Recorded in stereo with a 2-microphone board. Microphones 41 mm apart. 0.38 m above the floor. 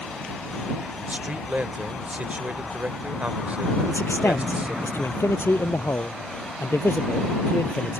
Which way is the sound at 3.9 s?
75° left (ahead or behind).